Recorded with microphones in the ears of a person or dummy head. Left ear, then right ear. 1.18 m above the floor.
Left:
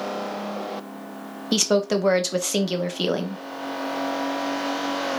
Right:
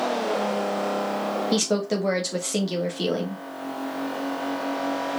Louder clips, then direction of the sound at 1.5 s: Left 8 dB; 30° left (ahead or behind).